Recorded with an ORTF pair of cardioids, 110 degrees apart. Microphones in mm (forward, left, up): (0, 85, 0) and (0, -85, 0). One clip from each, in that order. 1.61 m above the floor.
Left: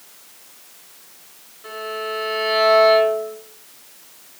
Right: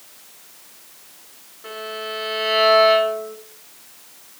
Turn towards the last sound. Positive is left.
turn(degrees=-10)